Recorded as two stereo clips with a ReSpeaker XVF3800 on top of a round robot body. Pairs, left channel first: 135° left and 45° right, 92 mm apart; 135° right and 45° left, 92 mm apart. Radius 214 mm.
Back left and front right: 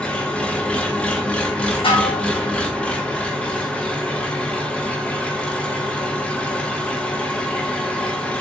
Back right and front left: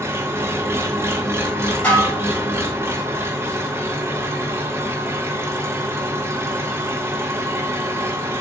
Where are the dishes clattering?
150° left, 1.6 m.